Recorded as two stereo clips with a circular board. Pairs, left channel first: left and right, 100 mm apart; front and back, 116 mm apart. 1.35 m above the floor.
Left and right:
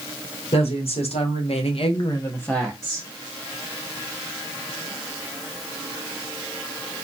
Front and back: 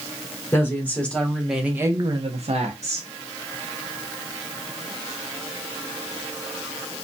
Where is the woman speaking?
70° left, 1.3 m; by 3.1 s 170° right, 0.8 m.